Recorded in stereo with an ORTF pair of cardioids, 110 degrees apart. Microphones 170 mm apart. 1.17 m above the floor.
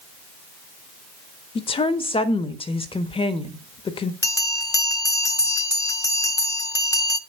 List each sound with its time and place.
1.6 s a woman speaking: 35° left, 1.4 m
4.2 s a bell: 20° left, 1.0 m